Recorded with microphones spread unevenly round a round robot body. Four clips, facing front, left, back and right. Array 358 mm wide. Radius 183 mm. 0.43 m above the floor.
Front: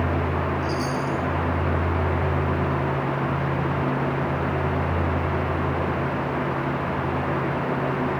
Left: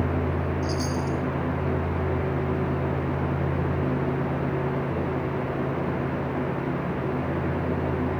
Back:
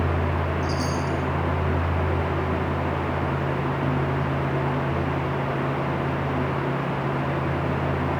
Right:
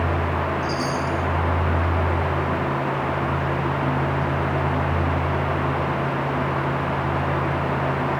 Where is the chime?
95° left, 2.5 m.